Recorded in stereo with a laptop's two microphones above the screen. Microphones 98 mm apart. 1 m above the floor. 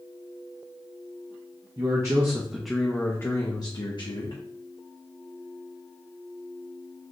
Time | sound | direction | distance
1.8 | a man speaking | 40° right (ahead or behind) | 0.8 m